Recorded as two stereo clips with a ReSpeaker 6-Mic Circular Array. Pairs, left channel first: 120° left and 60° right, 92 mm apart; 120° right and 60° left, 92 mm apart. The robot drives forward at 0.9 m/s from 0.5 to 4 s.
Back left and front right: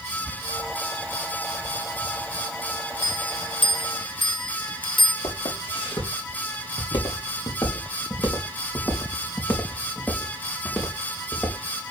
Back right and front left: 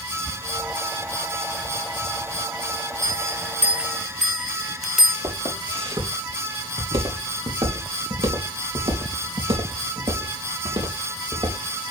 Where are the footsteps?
95° left, 4.5 m; by 11.6 s 35° left, 3.5 m.